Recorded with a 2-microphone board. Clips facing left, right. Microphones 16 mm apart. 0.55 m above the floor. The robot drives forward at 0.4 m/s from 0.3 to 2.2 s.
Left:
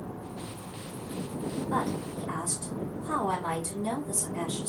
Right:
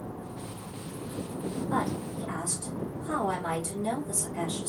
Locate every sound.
1.7 s a woman speaking: 10° right (ahead or behind), 3 m